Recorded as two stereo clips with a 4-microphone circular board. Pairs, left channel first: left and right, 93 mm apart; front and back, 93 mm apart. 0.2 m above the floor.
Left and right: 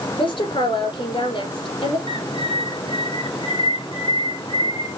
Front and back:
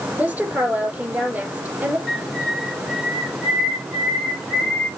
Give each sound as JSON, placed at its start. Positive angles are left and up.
{"t": 0.2, "sound": "a woman speaking", "azimuth_deg": 110, "distance_m": 5.5}
{"t": 2.1, "sound": "a bird", "azimuth_deg": 90, "distance_m": 4.5}